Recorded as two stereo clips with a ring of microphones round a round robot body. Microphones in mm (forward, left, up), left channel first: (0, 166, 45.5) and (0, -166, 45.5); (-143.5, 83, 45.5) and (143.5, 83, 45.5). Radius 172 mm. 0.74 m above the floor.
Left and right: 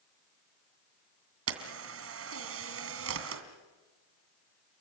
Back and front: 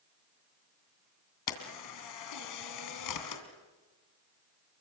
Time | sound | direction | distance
1.5 | a camera shutter | 140° right | 2.5 m